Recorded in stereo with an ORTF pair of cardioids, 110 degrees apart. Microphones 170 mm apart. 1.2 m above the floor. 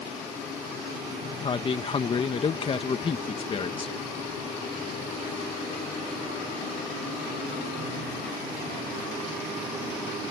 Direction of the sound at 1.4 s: 35° left.